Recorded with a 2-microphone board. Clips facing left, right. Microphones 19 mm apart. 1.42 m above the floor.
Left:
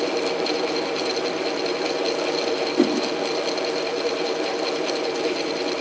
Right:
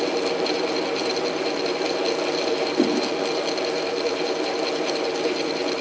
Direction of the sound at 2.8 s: 50° left (ahead or behind).